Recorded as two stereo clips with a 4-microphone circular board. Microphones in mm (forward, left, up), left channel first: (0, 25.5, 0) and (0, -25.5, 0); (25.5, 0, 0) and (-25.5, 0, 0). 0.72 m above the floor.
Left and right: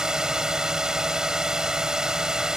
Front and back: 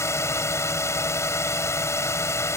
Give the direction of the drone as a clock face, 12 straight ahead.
12 o'clock.